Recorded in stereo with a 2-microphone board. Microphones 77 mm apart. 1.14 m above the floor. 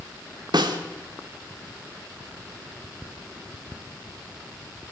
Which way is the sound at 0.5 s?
70° right (ahead or behind).